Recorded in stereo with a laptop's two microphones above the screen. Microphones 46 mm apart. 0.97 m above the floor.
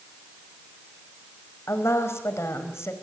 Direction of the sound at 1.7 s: 75° left (ahead or behind).